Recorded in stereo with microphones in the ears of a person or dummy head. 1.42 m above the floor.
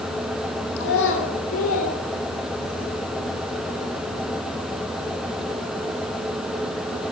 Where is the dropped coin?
I don't hear a dropped coin.